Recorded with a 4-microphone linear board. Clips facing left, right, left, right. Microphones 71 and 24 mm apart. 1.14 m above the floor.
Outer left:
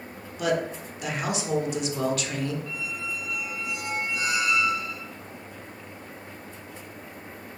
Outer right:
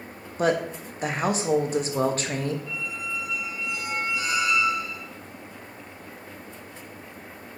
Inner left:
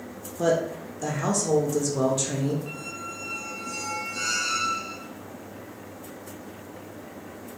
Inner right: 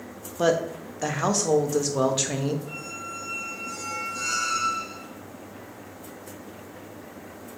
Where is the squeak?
85° left, 1.9 m.